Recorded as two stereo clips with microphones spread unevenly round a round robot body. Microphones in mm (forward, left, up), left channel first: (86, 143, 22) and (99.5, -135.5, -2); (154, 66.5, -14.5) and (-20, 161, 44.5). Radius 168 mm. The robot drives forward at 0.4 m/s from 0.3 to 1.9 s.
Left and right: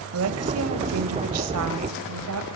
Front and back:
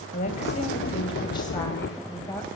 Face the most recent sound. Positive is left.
turn(degrees=-100)